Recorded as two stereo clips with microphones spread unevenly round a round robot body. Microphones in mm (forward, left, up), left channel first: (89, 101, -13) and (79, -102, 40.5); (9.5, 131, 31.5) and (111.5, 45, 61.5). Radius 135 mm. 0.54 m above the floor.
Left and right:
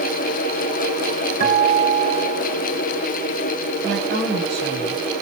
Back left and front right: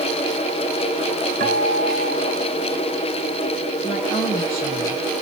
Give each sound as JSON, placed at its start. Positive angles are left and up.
{"t": 1.4, "sound": "a guitar", "azimuth_deg": -50, "distance_m": 3.0}
{"t": 3.8, "sound": "a woman speaking", "azimuth_deg": -145, "distance_m": 4.5}